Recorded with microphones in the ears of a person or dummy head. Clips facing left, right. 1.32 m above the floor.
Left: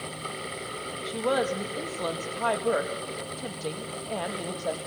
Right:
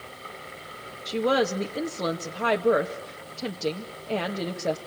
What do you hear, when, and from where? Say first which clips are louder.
1.1 s a woman speaking: right 3 dB; 25° right (ahead or behind), 2 m